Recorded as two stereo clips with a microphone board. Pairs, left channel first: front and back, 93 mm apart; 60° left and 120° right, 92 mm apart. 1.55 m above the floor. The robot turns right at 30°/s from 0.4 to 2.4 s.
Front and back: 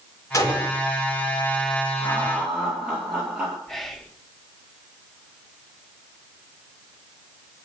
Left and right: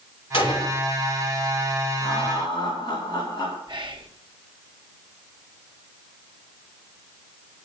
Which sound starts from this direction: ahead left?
A gunshot, at 0.3 s.